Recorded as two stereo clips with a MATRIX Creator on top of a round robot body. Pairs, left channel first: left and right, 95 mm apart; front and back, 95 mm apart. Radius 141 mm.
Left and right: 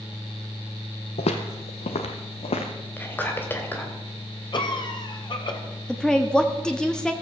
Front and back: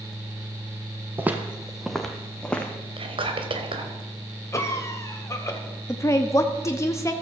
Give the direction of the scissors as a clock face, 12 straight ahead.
I don't hear scissors.